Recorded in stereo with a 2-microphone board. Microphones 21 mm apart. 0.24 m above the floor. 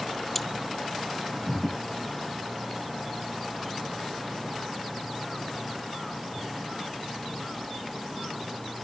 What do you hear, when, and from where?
0.3 s cutlery clinking: 5° left (ahead or behind)